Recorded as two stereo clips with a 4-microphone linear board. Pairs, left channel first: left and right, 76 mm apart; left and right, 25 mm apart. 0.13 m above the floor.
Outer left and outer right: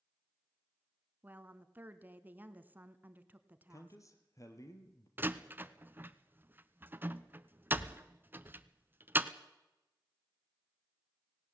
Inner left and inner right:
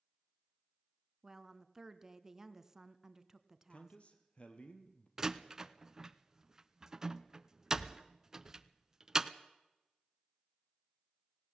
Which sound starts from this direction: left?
A man speaking, at 3.7 s.